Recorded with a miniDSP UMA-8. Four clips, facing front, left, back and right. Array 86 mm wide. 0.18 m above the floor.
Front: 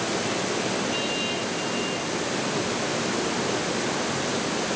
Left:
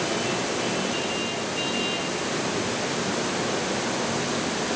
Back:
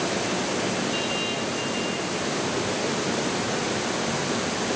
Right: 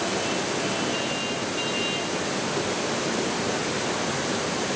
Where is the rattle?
I don't hear a rattle.